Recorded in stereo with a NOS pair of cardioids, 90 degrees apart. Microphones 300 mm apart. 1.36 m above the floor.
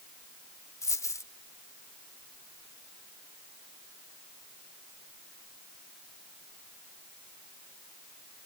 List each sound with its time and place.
0.8 s a dropped coin: 10° left